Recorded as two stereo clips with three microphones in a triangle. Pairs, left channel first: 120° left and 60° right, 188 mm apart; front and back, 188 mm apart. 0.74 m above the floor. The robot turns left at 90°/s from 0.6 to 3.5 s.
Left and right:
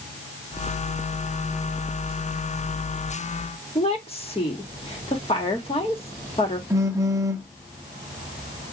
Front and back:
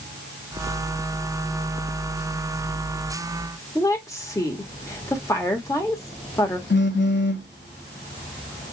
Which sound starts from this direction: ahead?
A phone buzzing, at 6.7 s.